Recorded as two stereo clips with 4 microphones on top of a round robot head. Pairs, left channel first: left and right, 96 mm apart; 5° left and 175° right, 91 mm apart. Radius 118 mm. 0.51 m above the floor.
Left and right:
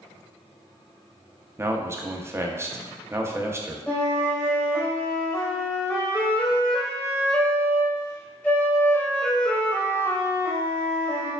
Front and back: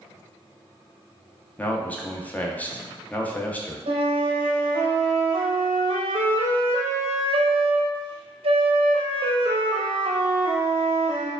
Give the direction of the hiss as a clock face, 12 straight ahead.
I don't hear a hiss.